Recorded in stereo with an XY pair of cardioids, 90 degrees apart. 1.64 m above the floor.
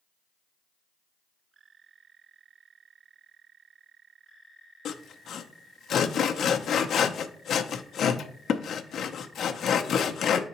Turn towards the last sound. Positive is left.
turn(degrees=65)